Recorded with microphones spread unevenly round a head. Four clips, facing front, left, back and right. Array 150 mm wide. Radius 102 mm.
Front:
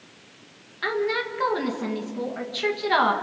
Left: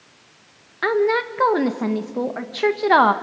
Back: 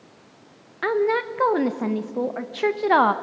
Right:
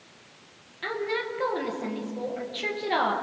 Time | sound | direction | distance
0.8 | a woman speaking | 110° left | 1.5 m